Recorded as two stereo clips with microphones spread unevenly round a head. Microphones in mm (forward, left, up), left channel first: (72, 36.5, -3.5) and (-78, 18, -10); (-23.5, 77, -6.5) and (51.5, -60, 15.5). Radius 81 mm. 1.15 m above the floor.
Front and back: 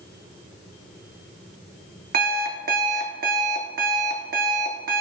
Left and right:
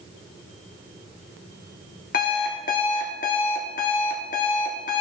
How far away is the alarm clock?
About 1.4 m.